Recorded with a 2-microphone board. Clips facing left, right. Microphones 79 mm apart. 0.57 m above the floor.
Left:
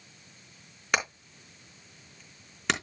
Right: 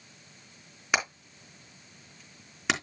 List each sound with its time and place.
0.9 s hammering: 5° right (ahead or behind), 3.5 m